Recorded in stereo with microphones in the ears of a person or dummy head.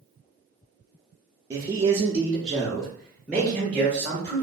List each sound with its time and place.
1.5 s a man speaking: 15° right (ahead or behind), 0.6 m; by 4.4 s 10° left (ahead or behind), 1.4 m